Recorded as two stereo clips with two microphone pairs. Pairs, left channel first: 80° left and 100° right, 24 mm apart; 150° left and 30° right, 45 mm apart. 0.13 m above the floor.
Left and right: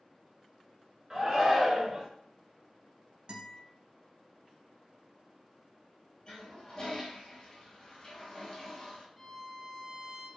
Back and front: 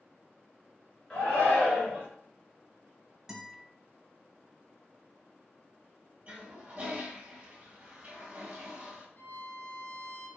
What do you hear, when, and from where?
1.1 s a shout: 155° right, 1.6 m
3.3 s a guitar: 105° right, 0.9 m
6.3 s a toilet flushing: 30° left, 0.9 m
9.2 s a violin: 150° left, 0.6 m